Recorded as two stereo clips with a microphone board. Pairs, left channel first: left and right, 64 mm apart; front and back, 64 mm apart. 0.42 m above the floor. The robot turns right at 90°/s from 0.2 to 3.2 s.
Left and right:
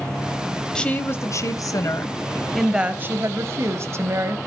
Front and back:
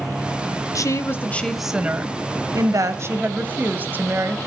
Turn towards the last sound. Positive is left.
turn(degrees=-125)